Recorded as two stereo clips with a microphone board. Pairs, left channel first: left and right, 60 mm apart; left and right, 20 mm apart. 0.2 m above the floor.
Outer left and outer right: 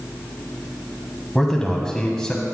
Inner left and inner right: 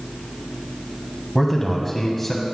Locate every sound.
1.4 s a man speaking: 5° left (ahead or behind), 1.1 m; by 2.5 s 10° left (ahead or behind), 1.1 m